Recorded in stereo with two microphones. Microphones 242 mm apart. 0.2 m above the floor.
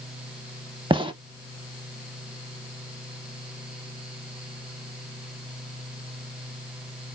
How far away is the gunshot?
About 0.5 m.